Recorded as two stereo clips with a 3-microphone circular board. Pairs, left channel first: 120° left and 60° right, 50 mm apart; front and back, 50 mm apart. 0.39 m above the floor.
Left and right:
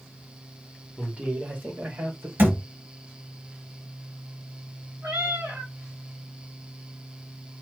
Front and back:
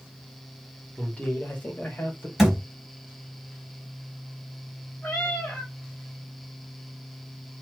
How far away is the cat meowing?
About 2 m.